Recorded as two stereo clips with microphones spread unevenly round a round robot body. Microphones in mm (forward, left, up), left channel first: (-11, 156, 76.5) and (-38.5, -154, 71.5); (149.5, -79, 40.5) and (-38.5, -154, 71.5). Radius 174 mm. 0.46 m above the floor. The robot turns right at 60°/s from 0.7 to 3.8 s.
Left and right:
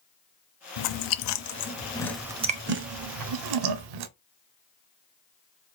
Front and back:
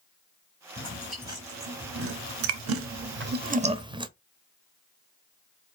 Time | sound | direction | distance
0.8 | chewing | 90° left | 0.7 m